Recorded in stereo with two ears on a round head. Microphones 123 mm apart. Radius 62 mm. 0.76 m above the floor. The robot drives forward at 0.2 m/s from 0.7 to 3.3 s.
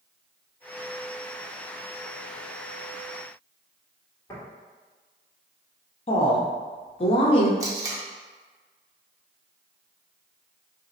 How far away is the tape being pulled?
About 0.7 m.